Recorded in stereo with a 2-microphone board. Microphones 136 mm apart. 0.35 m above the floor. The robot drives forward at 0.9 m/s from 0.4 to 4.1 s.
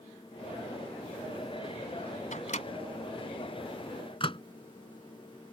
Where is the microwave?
60° left (ahead or behind); by 4.4 s 40° left (ahead or behind).